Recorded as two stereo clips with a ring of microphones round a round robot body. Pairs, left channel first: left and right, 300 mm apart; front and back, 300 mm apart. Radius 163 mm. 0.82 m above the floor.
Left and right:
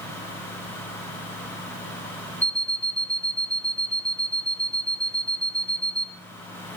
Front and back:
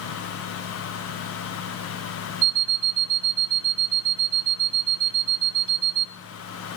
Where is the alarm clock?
170° right, 0.8 m.